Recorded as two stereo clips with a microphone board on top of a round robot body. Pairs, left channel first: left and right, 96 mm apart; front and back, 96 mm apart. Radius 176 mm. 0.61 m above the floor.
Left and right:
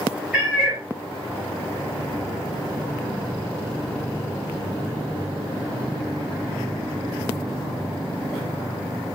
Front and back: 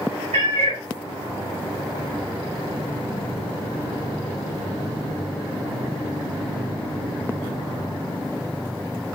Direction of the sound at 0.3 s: 175° right.